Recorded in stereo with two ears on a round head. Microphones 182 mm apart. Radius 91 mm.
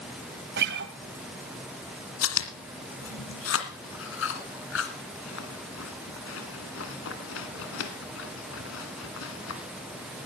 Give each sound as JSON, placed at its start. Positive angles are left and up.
{"t": 0.6, "sound": "a guitar", "side_deg": -60, "distance_m": 1.7}
{"t": 2.2, "sound": "chewing", "side_deg": 70, "distance_m": 2.0}